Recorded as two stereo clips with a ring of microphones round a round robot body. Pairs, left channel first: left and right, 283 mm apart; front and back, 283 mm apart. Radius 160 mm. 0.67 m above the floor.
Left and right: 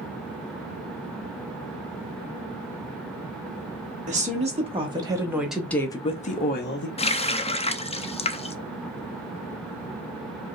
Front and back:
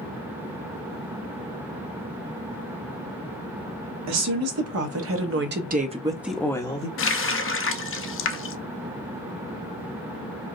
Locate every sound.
4.1 s a woman speaking: 155° right, 1.6 m; by 6.9 s 60° left, 0.9 m
7.0 s a running tap: 25° left, 0.6 m